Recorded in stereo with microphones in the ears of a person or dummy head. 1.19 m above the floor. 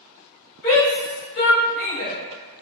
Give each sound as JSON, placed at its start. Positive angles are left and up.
{"t": 0.6, "sound": "a shout", "side_deg": 60, "distance_m": 1.7}